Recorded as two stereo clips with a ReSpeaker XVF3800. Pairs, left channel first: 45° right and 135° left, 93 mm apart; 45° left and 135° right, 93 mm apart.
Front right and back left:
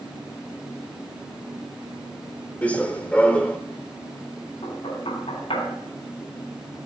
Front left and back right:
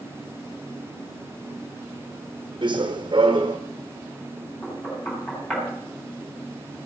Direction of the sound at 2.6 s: 120° right.